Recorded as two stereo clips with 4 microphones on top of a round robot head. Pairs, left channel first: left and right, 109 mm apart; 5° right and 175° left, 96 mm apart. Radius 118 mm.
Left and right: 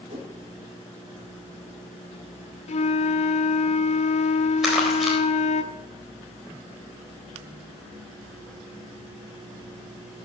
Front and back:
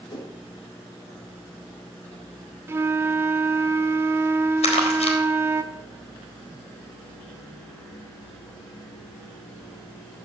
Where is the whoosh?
55° right, 3.5 m.